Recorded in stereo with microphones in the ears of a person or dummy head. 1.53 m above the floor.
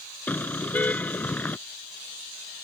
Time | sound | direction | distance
0.3 | a car horn | 5° left (ahead or behind) | ?